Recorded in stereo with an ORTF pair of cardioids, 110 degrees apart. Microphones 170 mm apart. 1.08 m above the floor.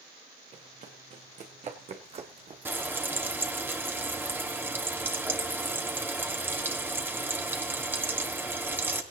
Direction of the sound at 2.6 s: 15° right.